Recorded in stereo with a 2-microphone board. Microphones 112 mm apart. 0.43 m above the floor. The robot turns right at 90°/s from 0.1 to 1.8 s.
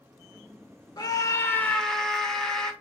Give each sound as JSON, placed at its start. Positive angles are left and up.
{"t": 1.0, "sound": "a scream", "azimuth_deg": 95, "distance_m": 1.6}